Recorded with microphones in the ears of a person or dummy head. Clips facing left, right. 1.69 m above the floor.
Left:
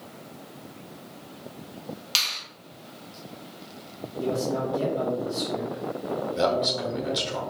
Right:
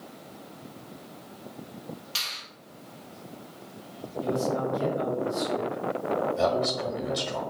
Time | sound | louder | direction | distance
2.1 | a finger snap | left 3 dB | 75° left (ahead or behind) | 1.6 m
4.2 | a man speaking | left 1 dB | 65° left (ahead or behind) | 1.6 m
6.4 | a man speaking | left 1 dB | 30° left (ahead or behind) | 0.9 m